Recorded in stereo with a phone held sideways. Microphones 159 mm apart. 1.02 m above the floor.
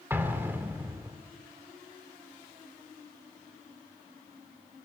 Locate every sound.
0.1 s an explosion: 15° right (ahead or behind), 2 m